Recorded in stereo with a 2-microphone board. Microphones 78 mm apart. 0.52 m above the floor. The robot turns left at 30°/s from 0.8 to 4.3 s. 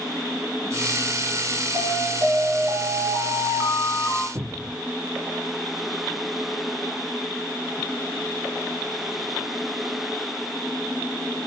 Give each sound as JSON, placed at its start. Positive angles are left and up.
{"t": 1.7, "sound": "an alarm", "azimuth_deg": -100, "distance_m": 6.0}
{"t": 4.3, "sound": "a cupboard door", "side_deg": -30, "distance_m": 0.7}